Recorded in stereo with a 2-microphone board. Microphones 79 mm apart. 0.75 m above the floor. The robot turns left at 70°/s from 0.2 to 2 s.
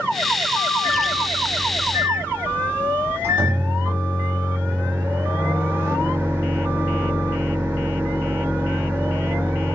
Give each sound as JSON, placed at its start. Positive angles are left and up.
{"t": 0.8, "sound": "a microwave", "azimuth_deg": 45, "distance_m": 1.2}